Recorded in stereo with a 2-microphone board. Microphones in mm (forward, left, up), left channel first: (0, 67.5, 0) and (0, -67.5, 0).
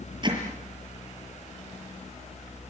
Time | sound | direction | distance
0.2 | hammering | 35° right (ahead or behind) | 6.5 m